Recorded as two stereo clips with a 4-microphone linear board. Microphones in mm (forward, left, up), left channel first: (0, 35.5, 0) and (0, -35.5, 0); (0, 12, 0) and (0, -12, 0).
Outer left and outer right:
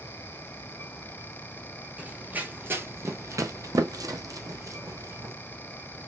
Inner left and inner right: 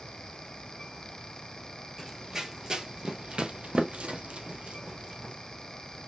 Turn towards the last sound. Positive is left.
turn(degrees=-40)  # may be behind; listen again after turning